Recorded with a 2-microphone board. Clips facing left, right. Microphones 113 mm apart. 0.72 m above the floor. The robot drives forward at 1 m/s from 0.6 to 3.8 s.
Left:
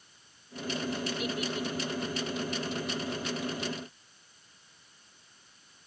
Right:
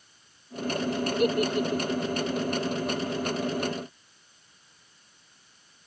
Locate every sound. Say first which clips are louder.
1.2 s a giggle: right 9 dB; 55° right (ahead or behind); by 2.2 s 65° right (ahead or behind)